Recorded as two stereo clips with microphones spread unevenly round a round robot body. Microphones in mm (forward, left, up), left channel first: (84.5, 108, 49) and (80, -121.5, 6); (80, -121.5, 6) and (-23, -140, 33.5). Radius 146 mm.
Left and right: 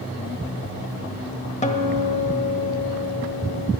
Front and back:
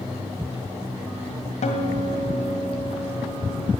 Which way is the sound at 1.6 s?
25° left.